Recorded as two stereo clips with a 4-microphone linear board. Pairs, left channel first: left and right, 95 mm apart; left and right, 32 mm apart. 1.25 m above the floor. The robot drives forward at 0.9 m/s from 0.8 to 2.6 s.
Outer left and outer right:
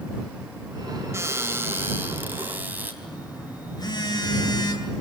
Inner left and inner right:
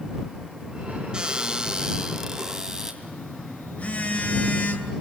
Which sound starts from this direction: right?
A cupboard door, at 1.1 s.